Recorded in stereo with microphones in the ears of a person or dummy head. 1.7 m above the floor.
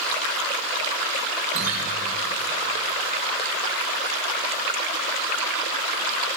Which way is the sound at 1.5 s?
45° right (ahead or behind).